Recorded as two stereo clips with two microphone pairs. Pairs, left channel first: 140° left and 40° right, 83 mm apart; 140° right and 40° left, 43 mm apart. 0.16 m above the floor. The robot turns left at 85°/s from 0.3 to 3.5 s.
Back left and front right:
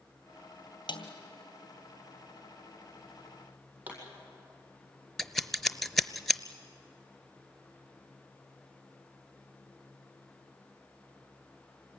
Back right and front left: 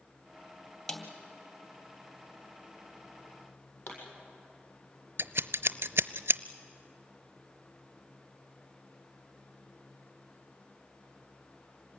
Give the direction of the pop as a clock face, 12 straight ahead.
4 o'clock.